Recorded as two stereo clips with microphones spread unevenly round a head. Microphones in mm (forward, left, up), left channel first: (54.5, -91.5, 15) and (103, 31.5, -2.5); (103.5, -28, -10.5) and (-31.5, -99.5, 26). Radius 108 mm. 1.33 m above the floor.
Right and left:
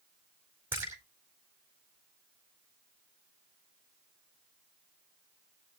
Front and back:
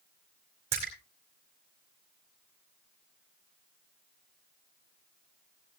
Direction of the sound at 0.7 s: 150° left.